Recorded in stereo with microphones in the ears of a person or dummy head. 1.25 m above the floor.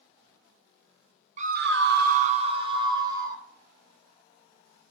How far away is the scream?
About 0.7 m.